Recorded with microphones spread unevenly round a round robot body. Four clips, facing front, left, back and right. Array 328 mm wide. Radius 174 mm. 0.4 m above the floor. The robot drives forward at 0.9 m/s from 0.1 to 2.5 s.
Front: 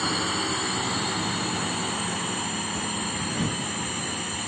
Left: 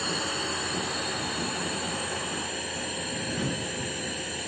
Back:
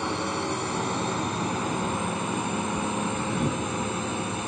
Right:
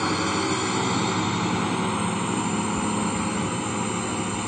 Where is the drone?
80° right; by 4.5 s 100° right.